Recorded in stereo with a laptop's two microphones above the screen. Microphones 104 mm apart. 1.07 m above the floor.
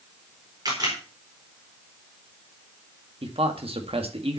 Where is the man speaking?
70° right (ahead or behind), 1.9 m.